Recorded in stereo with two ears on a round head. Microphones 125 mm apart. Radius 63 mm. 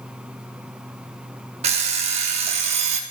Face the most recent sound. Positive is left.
turn(degrees=-45)  # may be behind; listen again after turning